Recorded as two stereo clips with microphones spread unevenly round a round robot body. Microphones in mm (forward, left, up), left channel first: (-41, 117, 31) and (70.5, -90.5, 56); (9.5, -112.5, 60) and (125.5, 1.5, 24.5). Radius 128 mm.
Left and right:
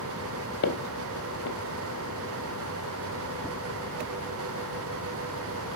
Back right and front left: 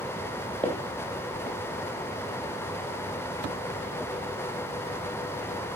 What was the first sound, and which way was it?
Footsteps, 155° left.